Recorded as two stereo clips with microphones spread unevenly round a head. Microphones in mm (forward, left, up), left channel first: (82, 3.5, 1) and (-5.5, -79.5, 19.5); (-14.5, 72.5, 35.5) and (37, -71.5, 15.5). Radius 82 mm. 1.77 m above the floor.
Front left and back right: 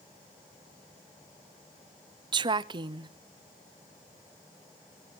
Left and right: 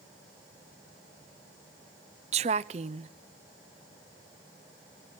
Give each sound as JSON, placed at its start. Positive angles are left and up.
{"t": 2.3, "sound": "a woman speaking", "azimuth_deg": -120, "distance_m": 0.6}